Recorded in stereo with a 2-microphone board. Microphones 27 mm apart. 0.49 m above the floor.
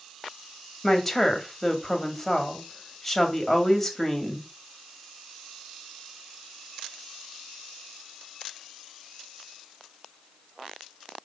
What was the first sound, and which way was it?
A woman speaking, 15° left (ahead or behind).